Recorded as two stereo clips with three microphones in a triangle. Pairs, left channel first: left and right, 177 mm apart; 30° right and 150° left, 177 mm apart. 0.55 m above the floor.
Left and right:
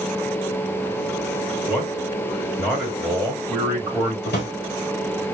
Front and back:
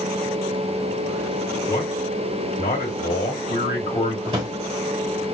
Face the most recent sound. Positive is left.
turn(degrees=90)